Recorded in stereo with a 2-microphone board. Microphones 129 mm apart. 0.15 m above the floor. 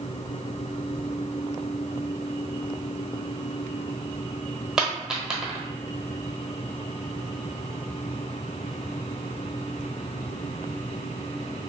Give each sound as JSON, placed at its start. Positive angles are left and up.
{"t": 4.8, "sound": "a dropped coin", "side_deg": -5, "distance_m": 0.9}